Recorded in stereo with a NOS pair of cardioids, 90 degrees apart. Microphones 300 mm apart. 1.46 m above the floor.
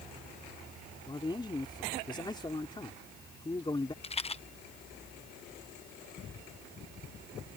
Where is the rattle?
20° left.